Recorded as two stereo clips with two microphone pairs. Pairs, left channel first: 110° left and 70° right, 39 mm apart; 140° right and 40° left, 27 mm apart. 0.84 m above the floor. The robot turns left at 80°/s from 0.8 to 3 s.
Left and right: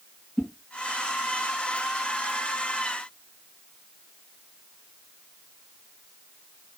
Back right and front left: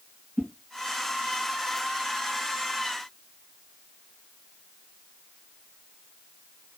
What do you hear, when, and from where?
0.4 s a whoosh: 50° left, 1.8 m